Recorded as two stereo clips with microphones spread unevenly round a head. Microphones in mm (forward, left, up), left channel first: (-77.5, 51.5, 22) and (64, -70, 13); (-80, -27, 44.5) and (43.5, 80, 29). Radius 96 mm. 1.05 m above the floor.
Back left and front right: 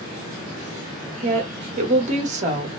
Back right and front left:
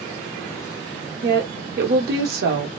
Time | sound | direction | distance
1.2 | a woman speaking | 15° left | 0.8 m